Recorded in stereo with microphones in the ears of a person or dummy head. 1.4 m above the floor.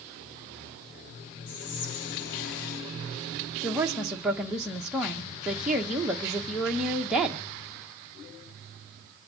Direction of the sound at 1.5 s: 55° left (ahead or behind).